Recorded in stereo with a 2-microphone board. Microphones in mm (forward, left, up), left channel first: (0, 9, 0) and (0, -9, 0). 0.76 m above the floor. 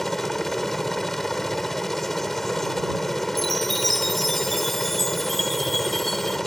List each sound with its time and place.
0.0 s a helicopter: 10° left (ahead or behind)
3.4 s a chime: 15° left (ahead or behind)